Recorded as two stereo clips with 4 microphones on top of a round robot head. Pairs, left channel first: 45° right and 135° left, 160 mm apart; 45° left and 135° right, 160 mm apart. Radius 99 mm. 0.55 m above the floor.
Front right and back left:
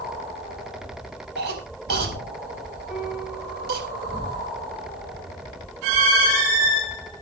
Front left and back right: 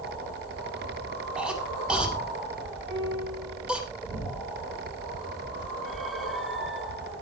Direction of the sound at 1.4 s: 140° left.